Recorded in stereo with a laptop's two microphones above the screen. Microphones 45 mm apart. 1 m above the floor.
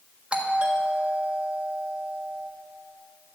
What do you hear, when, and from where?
0.3 s a doorbell: 20° right (ahead or behind), 1.5 m